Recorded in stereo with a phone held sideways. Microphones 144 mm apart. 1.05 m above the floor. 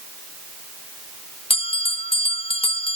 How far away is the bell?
About 1.1 m.